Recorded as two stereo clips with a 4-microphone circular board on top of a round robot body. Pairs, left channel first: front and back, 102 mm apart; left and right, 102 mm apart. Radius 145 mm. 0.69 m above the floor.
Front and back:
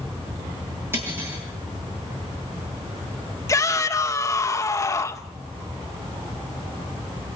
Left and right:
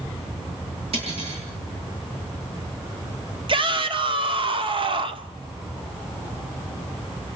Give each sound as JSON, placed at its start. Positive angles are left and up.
{"t": 0.9, "sound": "cutlery clinking", "azimuth_deg": -110, "distance_m": 9.5}
{"t": 3.5, "sound": "a shout", "azimuth_deg": -60, "distance_m": 2.0}